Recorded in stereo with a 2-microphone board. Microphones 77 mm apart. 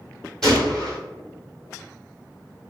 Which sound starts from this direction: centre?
A gunshot, at 0.4 s.